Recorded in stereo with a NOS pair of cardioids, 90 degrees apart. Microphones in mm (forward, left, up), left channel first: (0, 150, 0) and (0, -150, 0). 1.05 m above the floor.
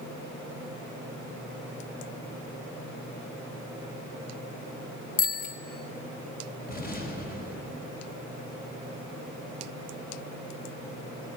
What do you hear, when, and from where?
5.2 s a bicycle bell: 25° left, 2 m
6.7 s an explosion: 30° left, 4.5 m